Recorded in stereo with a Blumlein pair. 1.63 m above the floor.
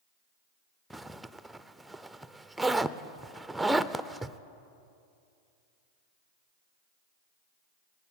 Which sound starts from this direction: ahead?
A zipper, at 0.9 s.